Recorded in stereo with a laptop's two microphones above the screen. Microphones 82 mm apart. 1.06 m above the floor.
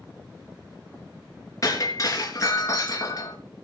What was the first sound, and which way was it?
Breaking glass, 40° left (ahead or behind).